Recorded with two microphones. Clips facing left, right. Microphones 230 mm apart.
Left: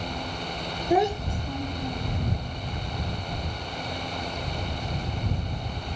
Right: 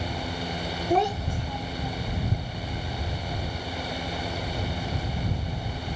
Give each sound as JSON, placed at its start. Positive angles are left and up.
{"t": 0.9, "sound": "a child speaking", "side_deg": 5}